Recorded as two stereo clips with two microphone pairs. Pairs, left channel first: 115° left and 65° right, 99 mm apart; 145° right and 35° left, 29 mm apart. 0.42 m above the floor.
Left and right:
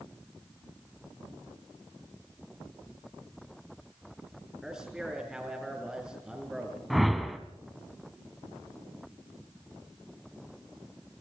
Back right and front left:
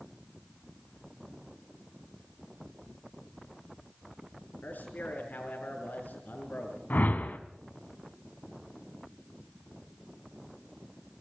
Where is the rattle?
No rattle in this recording.